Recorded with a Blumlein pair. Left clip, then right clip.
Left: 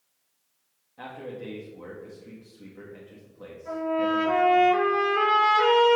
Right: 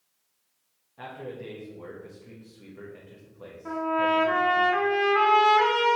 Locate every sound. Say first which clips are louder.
1.0 s a man speaking: left 1 dB; 5° left, 1.4 m
3.6 s a trumpet: right 1 dB; 55° right, 3 m